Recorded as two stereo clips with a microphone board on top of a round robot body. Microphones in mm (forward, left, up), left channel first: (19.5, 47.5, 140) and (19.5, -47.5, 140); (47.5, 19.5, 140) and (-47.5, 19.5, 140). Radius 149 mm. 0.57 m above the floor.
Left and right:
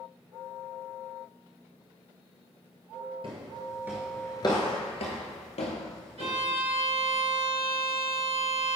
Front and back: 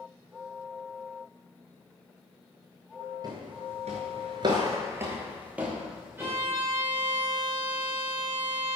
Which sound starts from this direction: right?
A violin, at 6.2 s.